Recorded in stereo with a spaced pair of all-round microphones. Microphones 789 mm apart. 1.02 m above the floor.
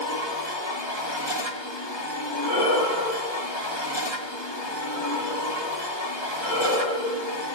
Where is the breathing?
80° left, 6.5 m.